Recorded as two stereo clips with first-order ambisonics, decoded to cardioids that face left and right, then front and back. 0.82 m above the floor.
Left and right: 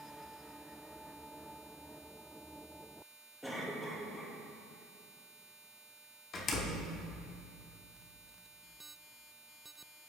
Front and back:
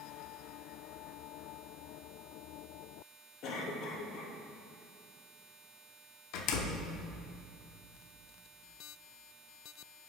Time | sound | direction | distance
3.4 | a cough | 5° left | 1.4 m
6.3 | a door slam | 30° left | 0.8 m